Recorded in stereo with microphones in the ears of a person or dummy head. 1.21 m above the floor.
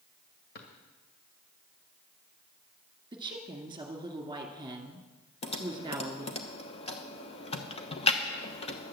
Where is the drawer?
50° left (ahead or behind), 1.9 m.